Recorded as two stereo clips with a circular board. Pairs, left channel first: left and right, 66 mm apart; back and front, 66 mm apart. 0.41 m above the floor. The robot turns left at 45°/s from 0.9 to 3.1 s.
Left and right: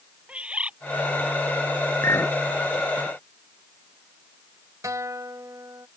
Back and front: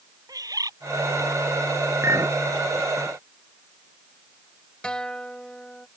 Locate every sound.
0.3 s a bird: 20° right
2.0 s a clink: 45° left; by 2.4 s 30° left
4.8 s a guitar: 105° right